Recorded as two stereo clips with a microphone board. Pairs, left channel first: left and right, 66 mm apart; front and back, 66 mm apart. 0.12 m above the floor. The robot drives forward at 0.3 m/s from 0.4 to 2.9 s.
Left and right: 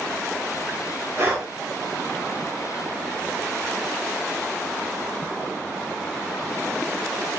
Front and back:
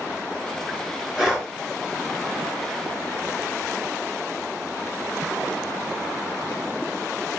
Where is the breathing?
105° right, 1.4 m; by 1.5 s 110° right, 1.5 m.